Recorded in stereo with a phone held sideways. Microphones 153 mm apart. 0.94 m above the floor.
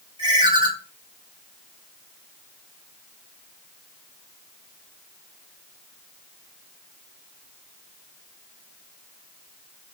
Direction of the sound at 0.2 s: 30° right (ahead or behind).